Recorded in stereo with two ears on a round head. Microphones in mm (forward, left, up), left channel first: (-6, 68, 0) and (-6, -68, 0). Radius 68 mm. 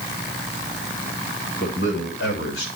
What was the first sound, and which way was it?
A man speaking, 85° left.